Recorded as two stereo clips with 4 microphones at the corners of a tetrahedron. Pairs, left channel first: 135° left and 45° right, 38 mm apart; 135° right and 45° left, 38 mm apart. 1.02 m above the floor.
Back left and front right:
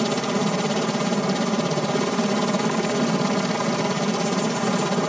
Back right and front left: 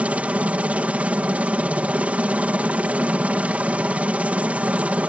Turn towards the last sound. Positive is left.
turn(degrees=50)